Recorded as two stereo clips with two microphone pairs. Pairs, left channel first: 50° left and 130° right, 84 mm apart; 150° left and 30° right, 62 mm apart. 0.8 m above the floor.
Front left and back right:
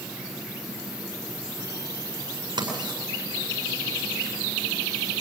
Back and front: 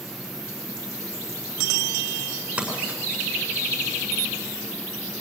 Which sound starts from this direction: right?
Writing, at 2.6 s.